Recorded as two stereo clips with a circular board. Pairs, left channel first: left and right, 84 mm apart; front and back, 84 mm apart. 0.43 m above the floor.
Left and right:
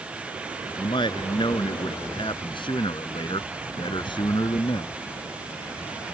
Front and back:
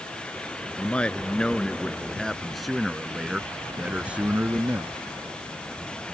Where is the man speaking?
75° left; by 4.9 s 115° left.